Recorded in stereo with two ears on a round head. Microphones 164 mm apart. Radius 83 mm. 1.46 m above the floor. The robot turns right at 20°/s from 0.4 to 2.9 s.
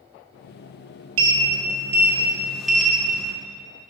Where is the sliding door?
30° right, 0.6 m; by 3.3 s 5° left, 0.6 m.